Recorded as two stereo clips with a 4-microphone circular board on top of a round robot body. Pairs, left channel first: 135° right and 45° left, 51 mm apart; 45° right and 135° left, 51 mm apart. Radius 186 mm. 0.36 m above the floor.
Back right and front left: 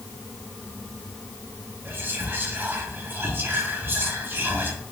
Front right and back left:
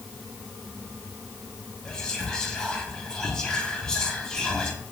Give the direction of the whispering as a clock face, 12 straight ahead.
11 o'clock.